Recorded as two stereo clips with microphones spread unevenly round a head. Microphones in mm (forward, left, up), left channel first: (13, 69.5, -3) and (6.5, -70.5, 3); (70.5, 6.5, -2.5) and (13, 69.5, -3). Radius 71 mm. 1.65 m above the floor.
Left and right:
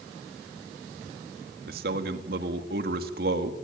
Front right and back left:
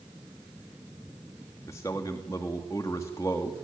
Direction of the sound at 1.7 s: 120° right.